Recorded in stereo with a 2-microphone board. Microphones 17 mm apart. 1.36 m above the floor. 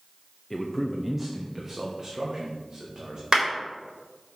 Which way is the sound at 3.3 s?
55° right (ahead or behind).